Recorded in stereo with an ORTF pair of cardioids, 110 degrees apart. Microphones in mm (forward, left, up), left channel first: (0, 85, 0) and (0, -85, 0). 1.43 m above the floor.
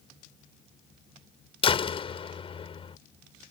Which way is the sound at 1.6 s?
35° left.